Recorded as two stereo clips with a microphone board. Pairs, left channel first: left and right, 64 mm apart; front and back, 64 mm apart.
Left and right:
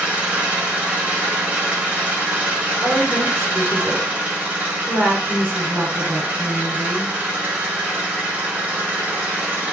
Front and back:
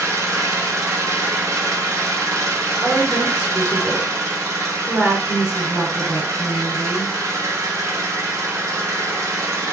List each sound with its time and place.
0.0 s an engine running: 155° right, 1.2 m
2.8 s a woman speaking: 100° right, 2 m